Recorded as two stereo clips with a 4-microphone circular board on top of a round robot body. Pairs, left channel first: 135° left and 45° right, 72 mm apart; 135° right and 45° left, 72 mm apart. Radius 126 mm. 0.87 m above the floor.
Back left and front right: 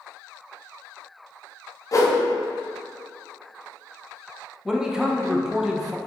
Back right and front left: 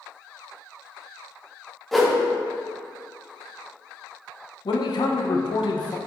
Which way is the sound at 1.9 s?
135° left.